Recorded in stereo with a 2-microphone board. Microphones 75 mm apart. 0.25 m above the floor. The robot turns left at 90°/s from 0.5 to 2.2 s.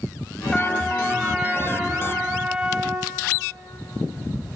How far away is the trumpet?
About 1.1 m.